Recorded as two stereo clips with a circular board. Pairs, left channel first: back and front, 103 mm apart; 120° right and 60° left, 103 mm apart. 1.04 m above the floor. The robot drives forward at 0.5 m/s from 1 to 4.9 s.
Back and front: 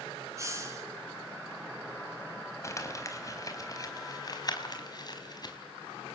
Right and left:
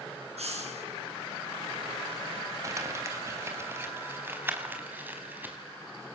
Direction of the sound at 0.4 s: 65° left.